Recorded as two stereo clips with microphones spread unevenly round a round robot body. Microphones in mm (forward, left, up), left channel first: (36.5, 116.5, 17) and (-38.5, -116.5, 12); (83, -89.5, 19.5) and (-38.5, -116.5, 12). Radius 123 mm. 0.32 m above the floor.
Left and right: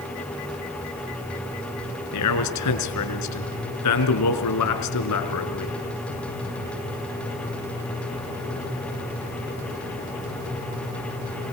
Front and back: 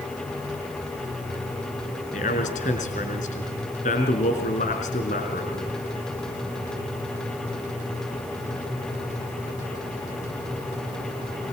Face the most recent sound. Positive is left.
turn(degrees=60)